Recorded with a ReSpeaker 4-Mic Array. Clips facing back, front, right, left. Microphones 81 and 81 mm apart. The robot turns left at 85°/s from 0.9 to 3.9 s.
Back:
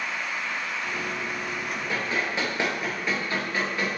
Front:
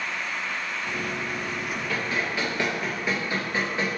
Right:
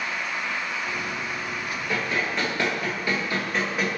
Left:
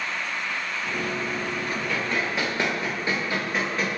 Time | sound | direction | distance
1.9 | running footsteps | 145° right | 1.9 m